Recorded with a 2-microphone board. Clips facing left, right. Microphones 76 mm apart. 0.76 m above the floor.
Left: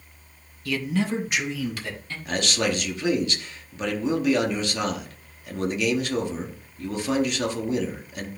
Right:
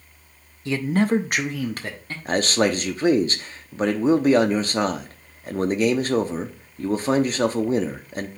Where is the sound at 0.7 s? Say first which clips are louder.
Right 5 dB; 25° right (ahead or behind), 0.6 m; by 2.1 s 45° right (ahead or behind), 1.4 m.